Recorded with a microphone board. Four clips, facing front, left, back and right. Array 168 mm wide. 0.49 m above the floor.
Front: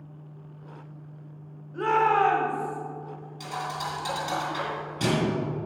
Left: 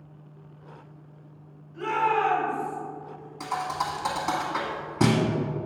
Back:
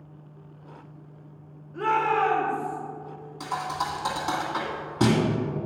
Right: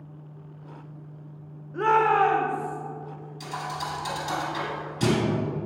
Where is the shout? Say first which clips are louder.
Right 4 dB, front 1 dB; 90° right, 1.7 m; by 2.8 s 20° right, 1.8 m.